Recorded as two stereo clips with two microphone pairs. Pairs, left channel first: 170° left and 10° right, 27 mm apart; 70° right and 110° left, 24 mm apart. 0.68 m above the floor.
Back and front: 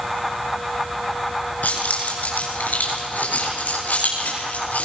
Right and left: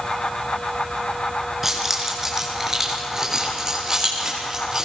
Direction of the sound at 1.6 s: 170° right.